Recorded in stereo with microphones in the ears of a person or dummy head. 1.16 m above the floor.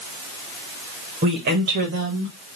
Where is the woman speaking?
45° right (ahead or behind), 1.2 m; by 2.3 s 75° right (ahead or behind), 1.7 m.